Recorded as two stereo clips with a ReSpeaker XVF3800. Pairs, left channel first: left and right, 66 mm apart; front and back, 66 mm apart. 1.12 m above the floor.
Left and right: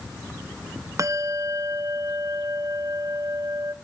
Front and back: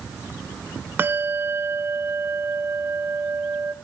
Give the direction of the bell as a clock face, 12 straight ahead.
4 o'clock.